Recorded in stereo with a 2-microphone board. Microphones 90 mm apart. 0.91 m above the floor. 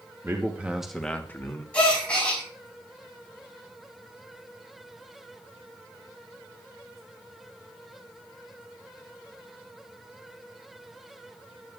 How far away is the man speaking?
About 1.1 m.